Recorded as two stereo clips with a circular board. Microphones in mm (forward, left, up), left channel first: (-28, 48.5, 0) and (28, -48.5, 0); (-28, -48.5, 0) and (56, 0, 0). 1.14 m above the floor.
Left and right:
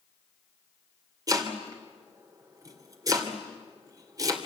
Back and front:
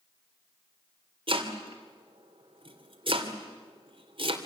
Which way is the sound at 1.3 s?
Straight ahead.